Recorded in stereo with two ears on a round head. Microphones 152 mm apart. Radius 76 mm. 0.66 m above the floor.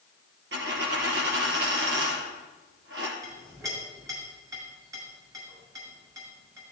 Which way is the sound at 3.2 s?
20° right (ahead or behind).